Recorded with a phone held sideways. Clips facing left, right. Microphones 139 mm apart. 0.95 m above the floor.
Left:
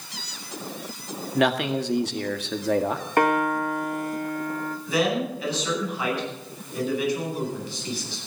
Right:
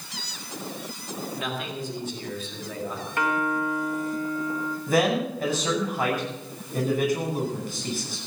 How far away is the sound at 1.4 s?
About 1.7 m.